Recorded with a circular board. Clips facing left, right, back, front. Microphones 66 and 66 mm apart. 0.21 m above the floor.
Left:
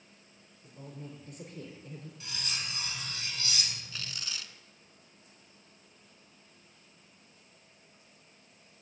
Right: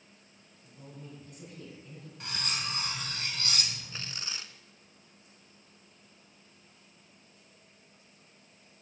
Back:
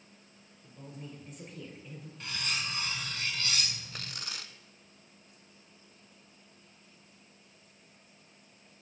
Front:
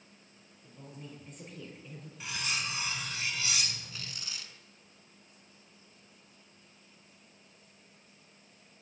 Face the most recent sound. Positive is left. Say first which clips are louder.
# right 1 dB, back 2 dB
turn(degrees=-150)